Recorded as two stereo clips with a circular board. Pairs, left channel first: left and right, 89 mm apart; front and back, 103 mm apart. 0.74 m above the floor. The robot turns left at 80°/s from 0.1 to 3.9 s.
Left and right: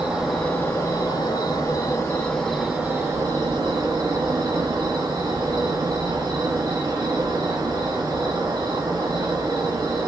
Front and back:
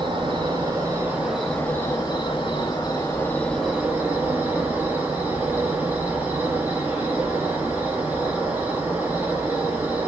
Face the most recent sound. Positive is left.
turn(degrees=-110)